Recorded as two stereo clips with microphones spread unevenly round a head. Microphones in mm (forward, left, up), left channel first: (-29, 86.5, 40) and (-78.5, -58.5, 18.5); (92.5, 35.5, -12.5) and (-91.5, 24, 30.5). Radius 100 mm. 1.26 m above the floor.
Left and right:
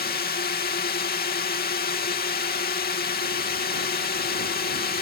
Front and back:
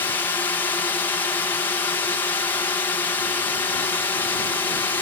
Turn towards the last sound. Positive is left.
turn(degrees=75)